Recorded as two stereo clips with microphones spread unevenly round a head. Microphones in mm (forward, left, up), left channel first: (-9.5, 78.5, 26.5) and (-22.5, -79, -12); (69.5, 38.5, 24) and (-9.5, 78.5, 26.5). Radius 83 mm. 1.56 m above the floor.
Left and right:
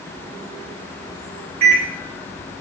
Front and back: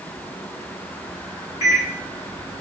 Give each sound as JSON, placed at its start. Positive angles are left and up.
{"t": 1.6, "sound": "a microwave", "azimuth_deg": -50, "distance_m": 1.5}